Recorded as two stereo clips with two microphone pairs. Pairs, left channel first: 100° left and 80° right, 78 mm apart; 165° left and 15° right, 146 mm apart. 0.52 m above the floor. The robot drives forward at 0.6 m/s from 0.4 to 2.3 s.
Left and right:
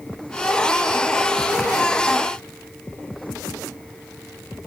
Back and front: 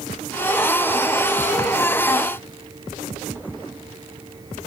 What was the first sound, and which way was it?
Only background noise.